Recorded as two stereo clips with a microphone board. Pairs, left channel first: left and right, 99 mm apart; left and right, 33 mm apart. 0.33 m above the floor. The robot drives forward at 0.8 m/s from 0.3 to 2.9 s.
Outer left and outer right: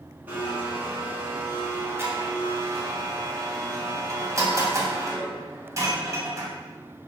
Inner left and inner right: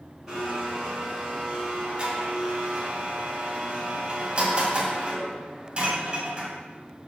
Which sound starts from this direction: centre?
A blender, at 0.3 s.